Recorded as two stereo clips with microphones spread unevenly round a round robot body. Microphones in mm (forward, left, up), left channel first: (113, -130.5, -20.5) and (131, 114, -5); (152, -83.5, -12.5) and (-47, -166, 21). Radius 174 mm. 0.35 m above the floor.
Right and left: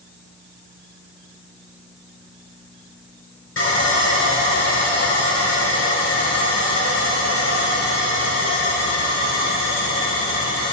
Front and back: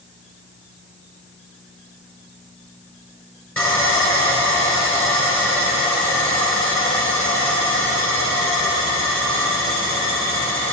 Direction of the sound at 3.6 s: 60° right.